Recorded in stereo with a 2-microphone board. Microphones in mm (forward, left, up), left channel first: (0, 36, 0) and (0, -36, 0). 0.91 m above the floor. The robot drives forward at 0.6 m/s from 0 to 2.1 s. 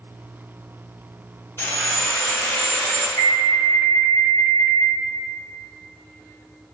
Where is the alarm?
30° left (ahead or behind), 0.7 m.